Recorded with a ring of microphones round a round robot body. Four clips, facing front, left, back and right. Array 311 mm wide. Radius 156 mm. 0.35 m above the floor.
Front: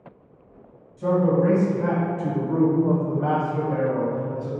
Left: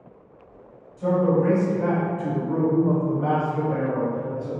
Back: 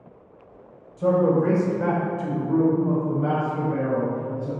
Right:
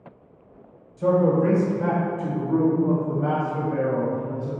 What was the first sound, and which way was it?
A man speaking, 145° right.